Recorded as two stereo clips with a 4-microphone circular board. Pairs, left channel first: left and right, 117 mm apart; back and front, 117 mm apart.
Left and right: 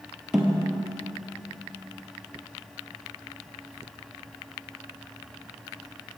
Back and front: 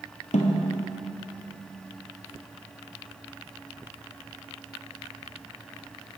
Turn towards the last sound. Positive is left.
turn(degrees=-175)